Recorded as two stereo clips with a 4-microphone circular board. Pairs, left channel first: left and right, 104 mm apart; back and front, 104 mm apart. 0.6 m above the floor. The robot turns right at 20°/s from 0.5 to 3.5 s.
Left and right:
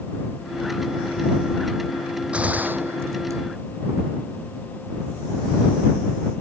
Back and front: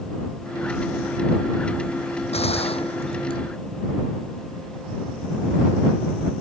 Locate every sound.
2.3 s a gunshot: 170° right; by 3.4 s 150° right